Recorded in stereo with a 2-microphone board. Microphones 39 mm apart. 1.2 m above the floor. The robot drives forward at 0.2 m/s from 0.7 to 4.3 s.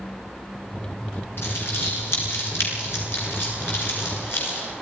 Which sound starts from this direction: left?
Crumpling, at 1.4 s.